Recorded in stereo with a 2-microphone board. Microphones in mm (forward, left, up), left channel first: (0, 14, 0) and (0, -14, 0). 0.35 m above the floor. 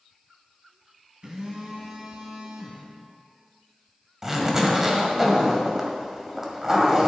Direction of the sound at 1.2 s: 35° right (ahead or behind).